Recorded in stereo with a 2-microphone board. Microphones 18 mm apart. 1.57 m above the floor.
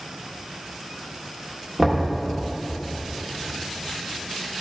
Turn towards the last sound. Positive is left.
turn(degrees=-10)  # may be behind; listen again after turning